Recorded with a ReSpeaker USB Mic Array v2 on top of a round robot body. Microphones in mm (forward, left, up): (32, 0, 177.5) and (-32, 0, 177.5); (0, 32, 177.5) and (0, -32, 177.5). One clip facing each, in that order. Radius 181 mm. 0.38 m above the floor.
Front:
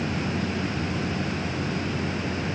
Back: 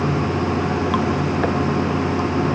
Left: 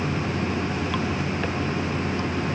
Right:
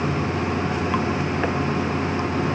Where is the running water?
160° right.